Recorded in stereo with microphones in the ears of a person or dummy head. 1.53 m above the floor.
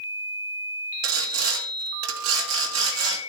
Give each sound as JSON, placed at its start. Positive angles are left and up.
{"t": 1.0, "sound": "sawing", "side_deg": -90, "distance_m": 2.5}